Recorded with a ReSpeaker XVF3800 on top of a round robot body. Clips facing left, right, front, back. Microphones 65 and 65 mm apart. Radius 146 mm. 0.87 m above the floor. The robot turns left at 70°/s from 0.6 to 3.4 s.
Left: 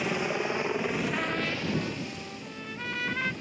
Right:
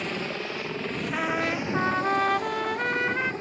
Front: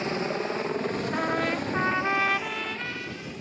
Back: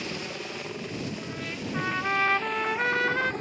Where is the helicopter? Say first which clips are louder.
Left 2 dB, front 7 dB; 10° left; by 3.4 s 140° right.